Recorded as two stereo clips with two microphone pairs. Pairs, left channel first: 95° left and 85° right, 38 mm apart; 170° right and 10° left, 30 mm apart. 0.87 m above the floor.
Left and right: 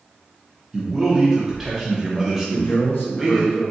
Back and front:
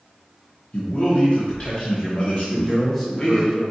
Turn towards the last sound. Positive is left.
turn(degrees=110)